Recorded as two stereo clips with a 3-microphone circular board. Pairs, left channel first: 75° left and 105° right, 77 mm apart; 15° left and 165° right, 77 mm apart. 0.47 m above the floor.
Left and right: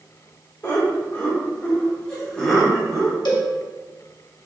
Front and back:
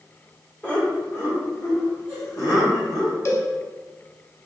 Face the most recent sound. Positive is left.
turn(degrees=65)